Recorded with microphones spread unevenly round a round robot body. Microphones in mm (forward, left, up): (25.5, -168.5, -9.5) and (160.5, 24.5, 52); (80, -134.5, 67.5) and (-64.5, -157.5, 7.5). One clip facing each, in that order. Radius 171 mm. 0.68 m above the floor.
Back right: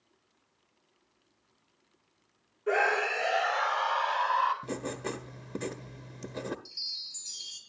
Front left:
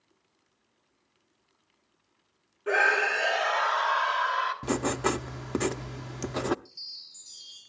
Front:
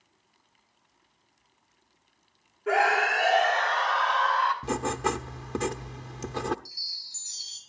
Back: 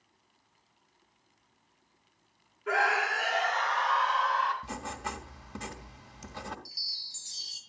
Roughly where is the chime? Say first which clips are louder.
Even, front 1 dB; behind right.